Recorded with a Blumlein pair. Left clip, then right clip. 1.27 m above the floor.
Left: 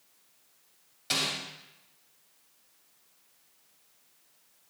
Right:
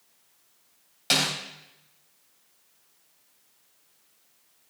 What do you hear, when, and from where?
1.1 s a snare drum: 65° right, 4 m